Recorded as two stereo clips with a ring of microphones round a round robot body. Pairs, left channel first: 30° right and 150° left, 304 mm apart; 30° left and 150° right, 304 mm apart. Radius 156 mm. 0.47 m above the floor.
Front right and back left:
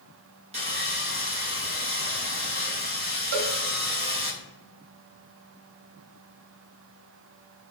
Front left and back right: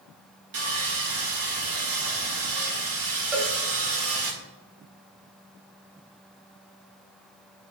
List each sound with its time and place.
0.5 s sawing: 145° right, 1.8 m
3.3 s a cowbell: 125° left, 1.5 m